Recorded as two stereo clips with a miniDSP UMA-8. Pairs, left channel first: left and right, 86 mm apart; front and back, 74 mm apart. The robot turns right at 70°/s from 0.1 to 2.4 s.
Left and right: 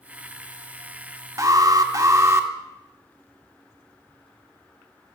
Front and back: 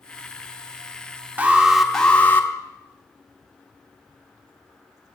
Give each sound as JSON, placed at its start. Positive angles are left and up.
{"t": 1.4, "sound": "an alarm", "azimuth_deg": -120, "distance_m": 1.0}